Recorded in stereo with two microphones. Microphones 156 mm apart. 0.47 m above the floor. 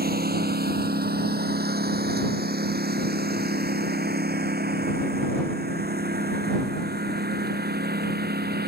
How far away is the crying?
I don't hear crying.